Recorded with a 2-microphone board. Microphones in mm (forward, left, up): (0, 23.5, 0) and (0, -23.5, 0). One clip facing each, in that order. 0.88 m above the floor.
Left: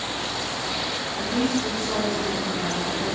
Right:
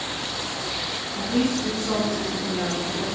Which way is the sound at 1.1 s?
60° right (ahead or behind).